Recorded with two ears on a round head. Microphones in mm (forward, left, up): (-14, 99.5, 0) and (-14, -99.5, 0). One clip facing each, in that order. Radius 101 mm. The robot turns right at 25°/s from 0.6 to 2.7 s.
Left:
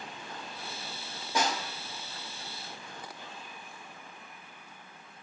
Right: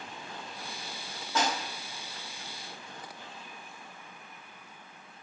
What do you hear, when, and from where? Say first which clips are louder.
1.4 s a snare drum: even; 15° left (ahead or behind), 2 m; by 1.6 s 10° left (ahead or behind), 2 m